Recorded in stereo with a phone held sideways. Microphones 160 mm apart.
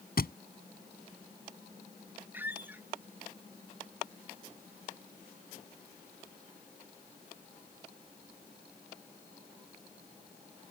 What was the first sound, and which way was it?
A thud, 70° left (ahead or behind).